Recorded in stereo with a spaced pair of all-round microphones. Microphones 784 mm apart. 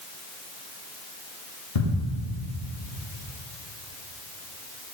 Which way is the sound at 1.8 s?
45° left (ahead or behind).